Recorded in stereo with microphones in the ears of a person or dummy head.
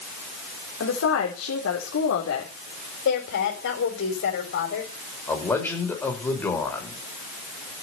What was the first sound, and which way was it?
A woman speaking, 75° left (ahead or behind).